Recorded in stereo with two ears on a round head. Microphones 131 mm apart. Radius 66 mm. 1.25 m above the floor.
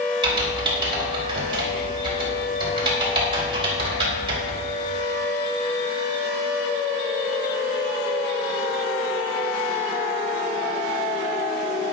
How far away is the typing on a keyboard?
About 4.5 m.